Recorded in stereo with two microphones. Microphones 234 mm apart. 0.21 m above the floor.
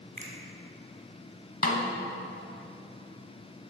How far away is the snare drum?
About 0.9 m.